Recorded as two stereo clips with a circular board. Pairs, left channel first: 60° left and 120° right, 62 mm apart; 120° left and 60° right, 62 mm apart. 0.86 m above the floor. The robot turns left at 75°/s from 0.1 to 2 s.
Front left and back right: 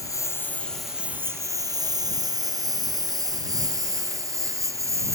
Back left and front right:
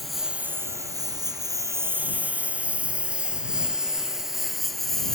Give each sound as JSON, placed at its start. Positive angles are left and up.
{"t": 0.0, "sound": "a lawn mower", "azimuth_deg": 30}